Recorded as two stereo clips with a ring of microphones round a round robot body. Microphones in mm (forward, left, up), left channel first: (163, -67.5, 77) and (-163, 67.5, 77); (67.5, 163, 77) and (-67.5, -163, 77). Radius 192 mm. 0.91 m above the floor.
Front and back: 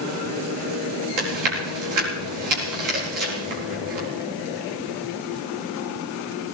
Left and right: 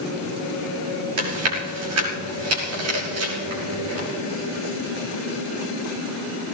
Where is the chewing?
165° right, 5 m.